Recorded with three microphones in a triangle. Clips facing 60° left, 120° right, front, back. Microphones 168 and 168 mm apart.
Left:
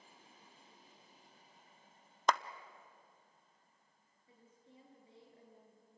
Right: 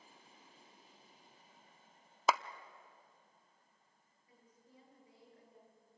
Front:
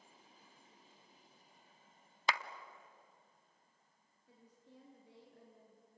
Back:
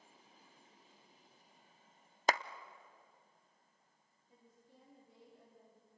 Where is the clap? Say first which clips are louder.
Even, back 4 dB; 160° left, 0.5 m.